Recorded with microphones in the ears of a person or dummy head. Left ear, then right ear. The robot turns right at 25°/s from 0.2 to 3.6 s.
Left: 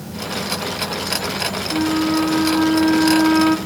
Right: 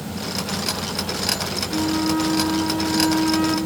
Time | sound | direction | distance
1.7 | a flute | 100° left | 1.8 m